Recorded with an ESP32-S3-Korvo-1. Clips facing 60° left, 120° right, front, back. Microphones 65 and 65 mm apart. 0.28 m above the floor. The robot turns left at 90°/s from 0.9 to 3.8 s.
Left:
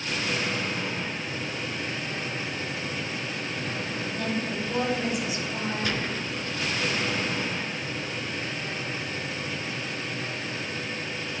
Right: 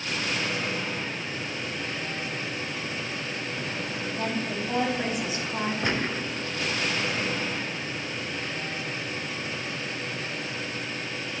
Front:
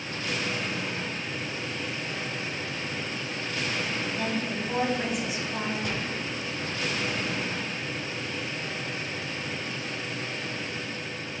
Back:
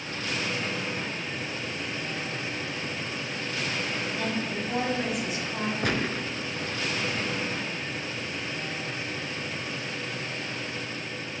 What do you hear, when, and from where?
4.2 s a woman speaking: 85° right, 2 m
5.8 s a gunshot: straight behind, 0.5 m